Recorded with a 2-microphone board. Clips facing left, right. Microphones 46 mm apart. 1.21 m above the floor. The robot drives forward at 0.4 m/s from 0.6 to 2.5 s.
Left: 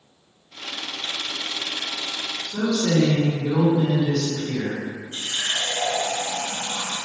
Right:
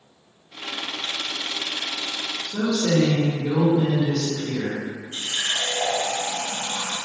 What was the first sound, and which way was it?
A woman speaking, 10° right (ahead or behind).